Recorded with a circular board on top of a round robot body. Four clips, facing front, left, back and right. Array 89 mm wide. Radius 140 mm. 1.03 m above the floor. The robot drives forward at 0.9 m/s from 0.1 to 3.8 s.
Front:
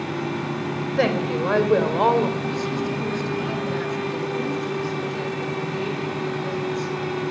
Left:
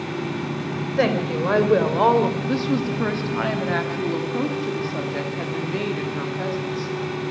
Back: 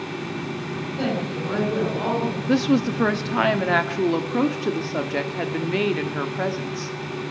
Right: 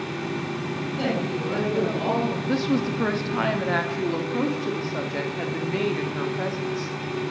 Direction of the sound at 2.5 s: Straight behind.